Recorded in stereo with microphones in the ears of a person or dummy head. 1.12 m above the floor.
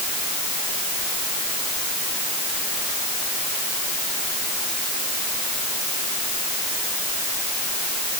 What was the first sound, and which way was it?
Only background noise.